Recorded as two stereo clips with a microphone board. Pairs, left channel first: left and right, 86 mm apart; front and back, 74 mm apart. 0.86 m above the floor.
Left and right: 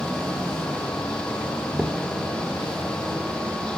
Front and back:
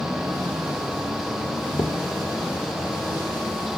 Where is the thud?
5° right, 1.1 m.